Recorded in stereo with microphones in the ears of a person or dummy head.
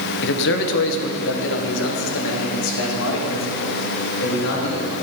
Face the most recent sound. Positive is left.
turn(degrees=80)